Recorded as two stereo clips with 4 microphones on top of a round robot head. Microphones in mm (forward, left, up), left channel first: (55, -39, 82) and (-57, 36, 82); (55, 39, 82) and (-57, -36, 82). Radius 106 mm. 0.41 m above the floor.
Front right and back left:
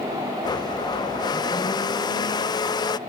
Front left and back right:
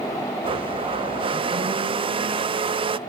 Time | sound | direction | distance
0.4 | a blender | 95° right | 0.8 m